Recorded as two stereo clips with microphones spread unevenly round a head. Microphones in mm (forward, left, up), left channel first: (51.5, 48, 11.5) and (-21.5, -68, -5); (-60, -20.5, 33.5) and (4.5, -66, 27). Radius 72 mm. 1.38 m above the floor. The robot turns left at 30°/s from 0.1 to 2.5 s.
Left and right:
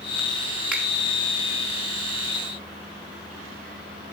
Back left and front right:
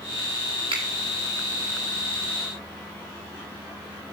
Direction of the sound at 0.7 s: 40° right.